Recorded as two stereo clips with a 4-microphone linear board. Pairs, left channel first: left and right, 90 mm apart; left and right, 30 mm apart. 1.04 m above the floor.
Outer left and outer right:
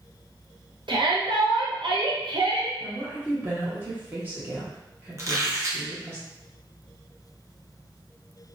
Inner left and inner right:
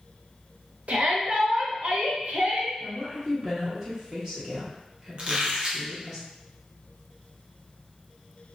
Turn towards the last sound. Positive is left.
turn(degrees=-40)  # may be behind; listen again after turning